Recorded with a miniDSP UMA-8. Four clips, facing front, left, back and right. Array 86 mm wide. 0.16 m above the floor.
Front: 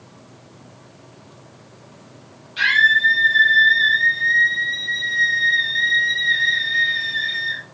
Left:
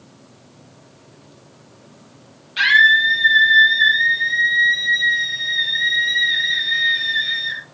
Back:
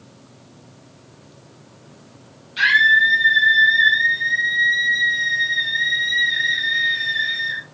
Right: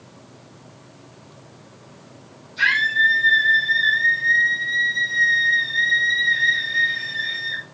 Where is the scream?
90° left, 5.5 m.